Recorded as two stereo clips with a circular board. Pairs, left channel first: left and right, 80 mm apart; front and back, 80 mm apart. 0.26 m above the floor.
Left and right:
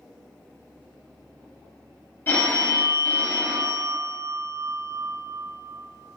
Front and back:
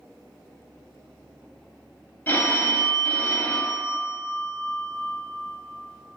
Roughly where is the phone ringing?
Ahead left.